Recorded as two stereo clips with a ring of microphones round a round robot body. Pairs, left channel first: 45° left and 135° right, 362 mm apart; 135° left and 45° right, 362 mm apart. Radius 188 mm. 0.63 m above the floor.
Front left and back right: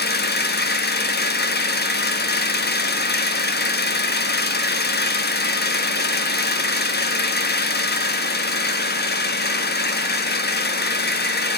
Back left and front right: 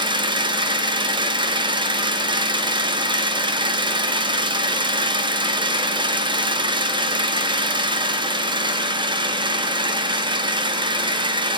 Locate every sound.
0.0 s an engine running: 20° left, 1.0 m